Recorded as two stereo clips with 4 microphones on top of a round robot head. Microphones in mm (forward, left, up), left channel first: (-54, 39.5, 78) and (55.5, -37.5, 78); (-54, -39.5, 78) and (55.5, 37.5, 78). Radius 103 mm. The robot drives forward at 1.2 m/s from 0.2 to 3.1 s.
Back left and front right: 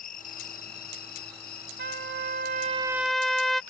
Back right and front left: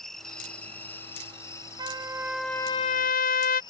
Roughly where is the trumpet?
Ahead right.